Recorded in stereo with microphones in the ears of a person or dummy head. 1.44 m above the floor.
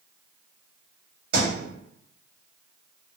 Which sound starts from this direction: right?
A thud, at 1.3 s.